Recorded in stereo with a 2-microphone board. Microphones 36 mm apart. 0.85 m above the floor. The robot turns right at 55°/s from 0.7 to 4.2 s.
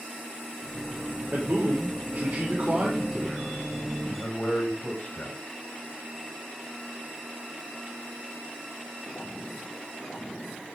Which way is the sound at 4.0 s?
35° left (ahead or behind).